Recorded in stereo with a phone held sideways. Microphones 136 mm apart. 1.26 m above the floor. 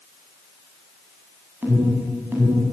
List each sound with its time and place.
1.6 s an alarm: 15° right (ahead or behind), 8 m